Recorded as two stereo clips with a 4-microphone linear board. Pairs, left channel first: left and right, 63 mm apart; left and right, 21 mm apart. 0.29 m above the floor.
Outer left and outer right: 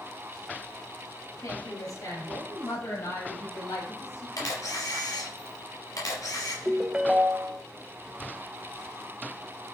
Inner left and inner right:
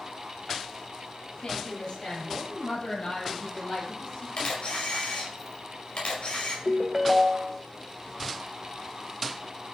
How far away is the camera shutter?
About 5 m.